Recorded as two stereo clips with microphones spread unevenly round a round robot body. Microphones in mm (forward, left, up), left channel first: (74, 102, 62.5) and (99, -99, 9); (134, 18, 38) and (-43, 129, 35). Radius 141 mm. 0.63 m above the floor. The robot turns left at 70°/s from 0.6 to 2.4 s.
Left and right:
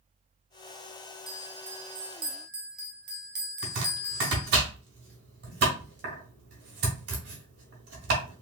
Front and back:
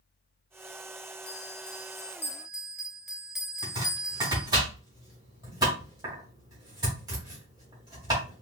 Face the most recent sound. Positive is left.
turn(degrees=-135)